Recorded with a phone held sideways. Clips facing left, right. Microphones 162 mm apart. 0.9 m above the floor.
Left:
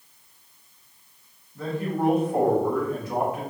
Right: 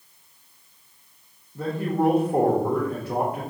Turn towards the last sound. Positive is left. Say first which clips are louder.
# right 3 dB
turn(degrees=-35)  # may be behind; listen again after turning